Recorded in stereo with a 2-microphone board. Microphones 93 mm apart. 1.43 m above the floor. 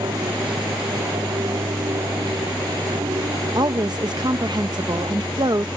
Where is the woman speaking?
55° right (ahead or behind).